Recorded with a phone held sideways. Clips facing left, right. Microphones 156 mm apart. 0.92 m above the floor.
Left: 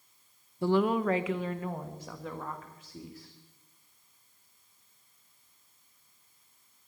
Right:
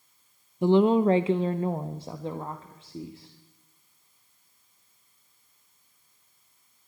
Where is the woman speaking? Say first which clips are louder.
Right 7 dB; 20° right (ahead or behind), 0.8 m; by 3.3 s 25° right (ahead or behind), 2.5 m.